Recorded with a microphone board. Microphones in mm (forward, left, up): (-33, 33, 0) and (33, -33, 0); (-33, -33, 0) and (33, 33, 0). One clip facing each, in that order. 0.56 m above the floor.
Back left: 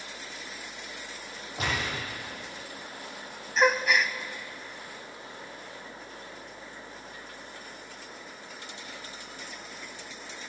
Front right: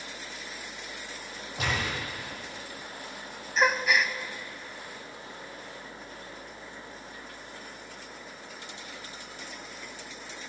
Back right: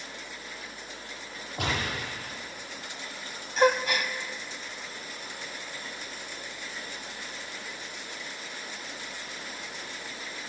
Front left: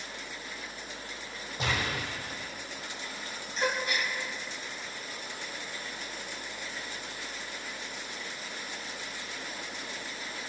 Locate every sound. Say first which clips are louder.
1.6 s a gunshot: even, back right 1 dB; 135° right, 7 m
3.6 s a gasp: back left 1 dB, back right 8 dB; 135° right, 0.7 m